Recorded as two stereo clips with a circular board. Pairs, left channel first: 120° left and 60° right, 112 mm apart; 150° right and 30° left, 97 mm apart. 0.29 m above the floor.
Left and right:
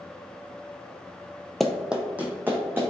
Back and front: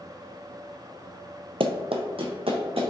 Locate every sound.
1.6 s running footsteps: 30° left, 0.5 m; by 2.9 s 10° left, 1.6 m